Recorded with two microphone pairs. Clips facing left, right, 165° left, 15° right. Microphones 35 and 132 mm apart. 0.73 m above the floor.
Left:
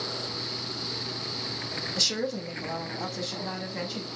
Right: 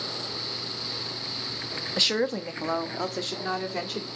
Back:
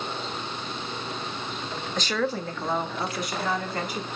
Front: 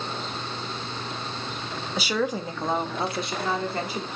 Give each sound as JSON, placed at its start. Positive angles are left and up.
{"t": 2.0, "sound": "a woman speaking", "azimuth_deg": -95, "distance_m": 0.5}